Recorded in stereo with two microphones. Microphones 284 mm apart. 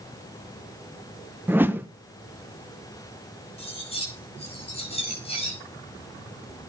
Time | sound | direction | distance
1.5 | a whoosh | 5° right (ahead or behind) | 1.1 m
3.6 | cutlery clinking | 20° left (ahead or behind) | 5.5 m